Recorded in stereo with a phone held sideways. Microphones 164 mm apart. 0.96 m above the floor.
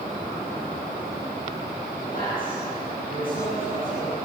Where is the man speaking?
60° left (ahead or behind), 9 m.